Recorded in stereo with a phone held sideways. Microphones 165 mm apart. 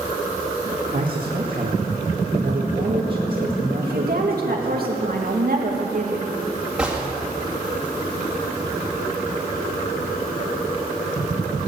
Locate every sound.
0.9 s a man speaking: 65° right (ahead or behind), 1.7 m
3.8 s a woman speaking: 75° right (ahead or behind), 2.5 m
6.8 s a gunshot: 5° right (ahead or behind), 2 m